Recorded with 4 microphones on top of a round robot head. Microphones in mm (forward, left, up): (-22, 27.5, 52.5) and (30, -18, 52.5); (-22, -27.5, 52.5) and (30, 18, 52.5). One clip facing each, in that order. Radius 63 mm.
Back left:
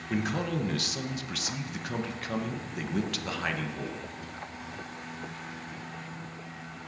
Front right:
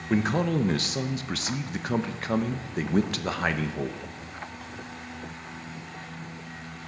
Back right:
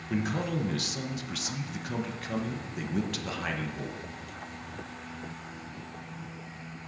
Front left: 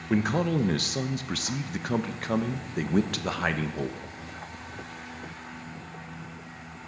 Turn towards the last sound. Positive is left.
turn(degrees=5)